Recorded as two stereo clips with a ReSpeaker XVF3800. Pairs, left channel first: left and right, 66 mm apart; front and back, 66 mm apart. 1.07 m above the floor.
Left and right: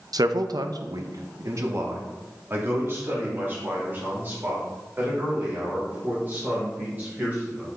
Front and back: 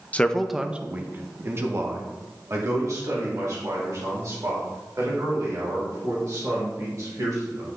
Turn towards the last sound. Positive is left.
turn(degrees=-155)